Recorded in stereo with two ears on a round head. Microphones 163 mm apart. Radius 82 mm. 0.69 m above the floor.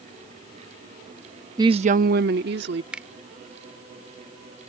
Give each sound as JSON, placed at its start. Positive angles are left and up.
{"t": 1.6, "sound": "a woman speaking", "side_deg": -20}
{"t": 2.9, "sound": "a finger snap", "side_deg": -5}